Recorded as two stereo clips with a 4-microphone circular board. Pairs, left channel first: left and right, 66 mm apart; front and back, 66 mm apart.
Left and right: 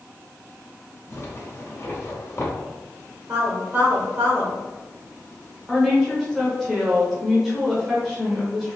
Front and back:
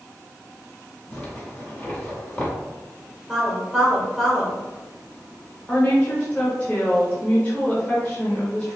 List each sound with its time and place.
1.1 s a zipper: 60° left, 1.5 m
3.3 s a woman speaking: 95° right, 1.3 m
5.7 s a woman speaking: 5° right, 1.1 m